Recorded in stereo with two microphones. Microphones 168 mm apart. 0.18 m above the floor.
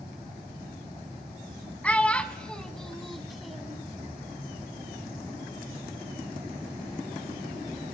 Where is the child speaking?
10° left (ahead or behind), 0.7 m; by 3.8 s 5° right (ahead or behind), 0.8 m.